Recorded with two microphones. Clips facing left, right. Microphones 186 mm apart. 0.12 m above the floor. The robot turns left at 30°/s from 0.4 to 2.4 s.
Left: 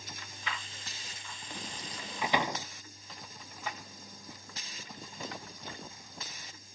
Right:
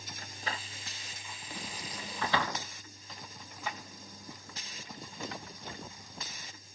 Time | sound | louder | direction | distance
0.2 | a door slam | right 3 dB | 40° right (ahead or behind) | ?